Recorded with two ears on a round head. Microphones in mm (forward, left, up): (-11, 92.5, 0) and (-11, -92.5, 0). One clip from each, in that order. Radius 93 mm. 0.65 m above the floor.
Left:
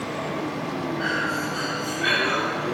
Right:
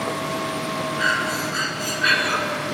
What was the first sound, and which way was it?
Breathing, 20° right (ahead or behind).